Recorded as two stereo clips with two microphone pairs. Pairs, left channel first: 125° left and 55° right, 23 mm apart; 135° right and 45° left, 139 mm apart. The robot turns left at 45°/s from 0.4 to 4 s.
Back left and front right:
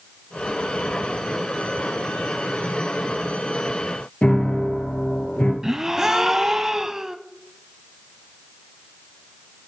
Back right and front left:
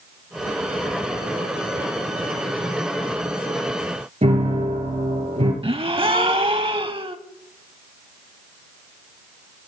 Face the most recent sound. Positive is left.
turn(degrees=5)